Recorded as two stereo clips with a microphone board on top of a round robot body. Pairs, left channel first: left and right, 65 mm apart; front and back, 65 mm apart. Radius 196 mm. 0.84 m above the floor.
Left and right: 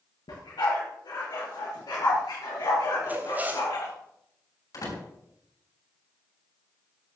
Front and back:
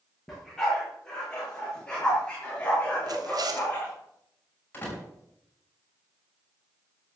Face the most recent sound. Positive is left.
turn(degrees=65)